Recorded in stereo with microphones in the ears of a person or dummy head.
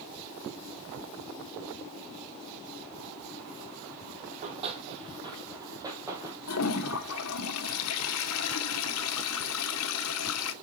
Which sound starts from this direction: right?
Running footsteps, at 4.3 s.